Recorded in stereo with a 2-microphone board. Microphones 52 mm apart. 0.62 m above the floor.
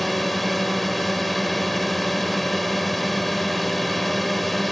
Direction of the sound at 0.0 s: Centre (ahead or behind).